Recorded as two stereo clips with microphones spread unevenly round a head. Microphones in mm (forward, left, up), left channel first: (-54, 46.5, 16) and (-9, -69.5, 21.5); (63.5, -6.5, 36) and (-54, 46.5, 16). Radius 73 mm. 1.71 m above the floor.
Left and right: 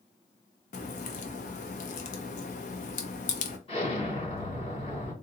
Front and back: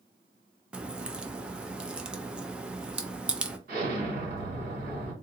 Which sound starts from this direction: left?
A crack, at 0.7 s.